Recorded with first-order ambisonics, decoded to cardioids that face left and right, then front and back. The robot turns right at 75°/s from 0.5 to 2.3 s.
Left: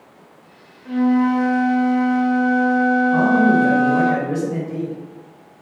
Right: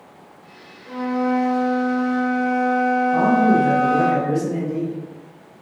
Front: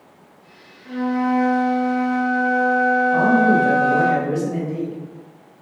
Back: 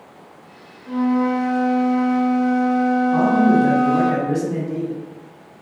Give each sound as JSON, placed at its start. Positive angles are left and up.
{"t": 0.8, "sound": "a flute", "azimuth_deg": 75, "distance_m": 0.9}
{"t": 3.1, "sound": "a man speaking", "azimuth_deg": 165, "distance_m": 1.8}